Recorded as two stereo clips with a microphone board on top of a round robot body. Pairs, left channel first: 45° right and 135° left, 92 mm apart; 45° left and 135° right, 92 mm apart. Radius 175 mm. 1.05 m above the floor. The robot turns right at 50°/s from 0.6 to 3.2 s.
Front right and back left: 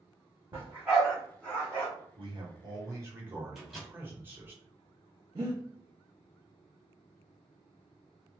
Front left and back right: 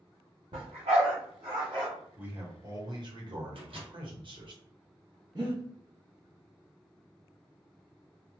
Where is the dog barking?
165° right, 0.9 m; by 1.9 s 100° right, 0.9 m.